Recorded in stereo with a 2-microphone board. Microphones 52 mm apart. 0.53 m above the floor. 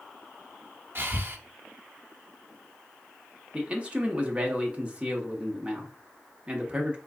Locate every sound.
0.9 s breathing: 45° right (ahead or behind), 0.5 m
3.5 s a man speaking: 20° right (ahead or behind), 0.8 m